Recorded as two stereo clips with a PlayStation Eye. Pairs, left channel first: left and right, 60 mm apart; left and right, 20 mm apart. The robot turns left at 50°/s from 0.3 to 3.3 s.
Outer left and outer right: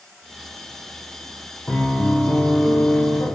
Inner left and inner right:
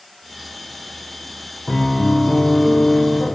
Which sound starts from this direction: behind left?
A piano, at 1.7 s.